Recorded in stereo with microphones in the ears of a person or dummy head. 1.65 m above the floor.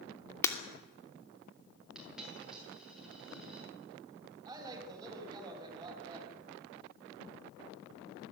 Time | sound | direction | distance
0.4 | breaking glass | 10° left (ahead or behind) | 2.5 m
1.9 | a dropped coin | 5° right (ahead or behind) | 8 m
4.5 | a woman speaking | 25° right (ahead or behind) | 7.5 m